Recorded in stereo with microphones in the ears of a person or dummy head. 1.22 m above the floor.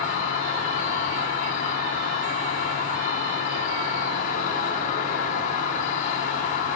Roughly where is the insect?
Left.